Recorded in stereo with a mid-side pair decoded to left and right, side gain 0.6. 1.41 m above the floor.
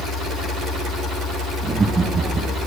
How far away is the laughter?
About 3 m.